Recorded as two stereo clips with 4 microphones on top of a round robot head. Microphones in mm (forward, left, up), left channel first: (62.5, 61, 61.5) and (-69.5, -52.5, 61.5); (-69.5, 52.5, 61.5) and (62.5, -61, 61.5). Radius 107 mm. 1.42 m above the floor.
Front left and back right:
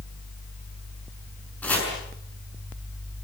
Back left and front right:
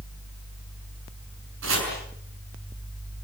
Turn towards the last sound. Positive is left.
turn(degrees=-40)